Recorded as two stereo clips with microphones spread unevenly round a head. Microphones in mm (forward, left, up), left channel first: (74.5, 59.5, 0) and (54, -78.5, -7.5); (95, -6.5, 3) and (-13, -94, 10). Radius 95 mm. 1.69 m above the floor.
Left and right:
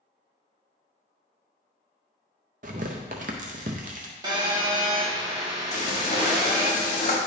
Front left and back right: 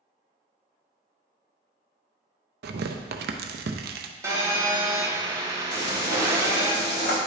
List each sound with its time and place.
2.6 s tearing paper: 150° right, 0.5 m
4.2 s a phone buzzing: 110° right, 1.2 m
5.7 s frying: 45° left, 1.6 m